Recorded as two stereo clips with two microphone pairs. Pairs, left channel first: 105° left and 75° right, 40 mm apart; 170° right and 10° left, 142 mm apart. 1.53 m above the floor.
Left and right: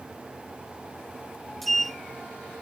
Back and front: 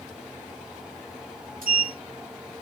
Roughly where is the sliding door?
Ahead.